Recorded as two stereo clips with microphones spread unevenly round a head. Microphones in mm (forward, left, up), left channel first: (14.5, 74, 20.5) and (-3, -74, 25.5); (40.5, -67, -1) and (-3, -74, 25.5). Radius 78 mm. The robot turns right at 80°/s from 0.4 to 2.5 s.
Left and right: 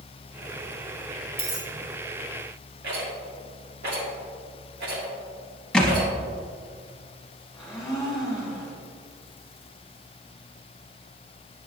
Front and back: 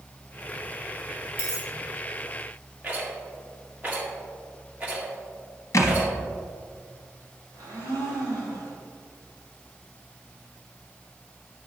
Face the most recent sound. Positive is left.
turn(degrees=175)